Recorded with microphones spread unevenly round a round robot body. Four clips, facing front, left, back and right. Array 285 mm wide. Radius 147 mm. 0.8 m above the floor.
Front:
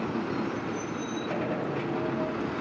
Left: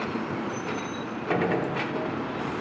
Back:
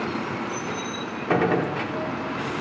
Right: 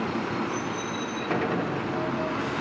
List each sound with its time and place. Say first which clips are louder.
1.3 s a gunshot: left 2 dB, back 11 dB; 170° left, 1.8 m